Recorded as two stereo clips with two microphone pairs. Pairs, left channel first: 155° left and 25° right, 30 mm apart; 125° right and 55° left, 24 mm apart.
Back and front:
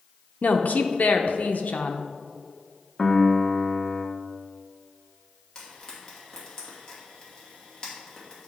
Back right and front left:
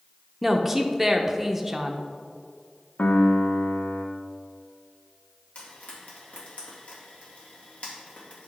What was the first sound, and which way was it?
A woman speaking, 140° left.